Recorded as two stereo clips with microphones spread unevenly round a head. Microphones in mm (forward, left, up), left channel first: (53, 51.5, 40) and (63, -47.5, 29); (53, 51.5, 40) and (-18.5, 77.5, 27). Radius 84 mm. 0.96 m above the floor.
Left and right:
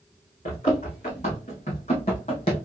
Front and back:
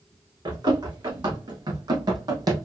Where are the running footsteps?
135° left, 3 m; by 2.7 s 130° left, 1.5 m.